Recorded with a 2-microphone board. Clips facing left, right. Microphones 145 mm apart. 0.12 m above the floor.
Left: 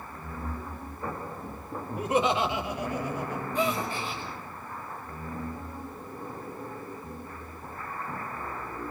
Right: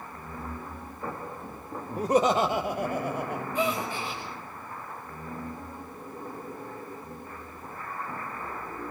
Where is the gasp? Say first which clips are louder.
Even; 10° right (ahead or behind), 5.5 m.